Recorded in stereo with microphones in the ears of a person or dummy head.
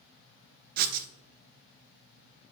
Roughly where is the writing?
Right.